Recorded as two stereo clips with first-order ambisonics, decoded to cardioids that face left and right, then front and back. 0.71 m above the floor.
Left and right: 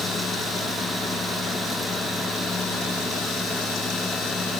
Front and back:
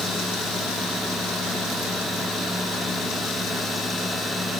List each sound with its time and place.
Only background noise.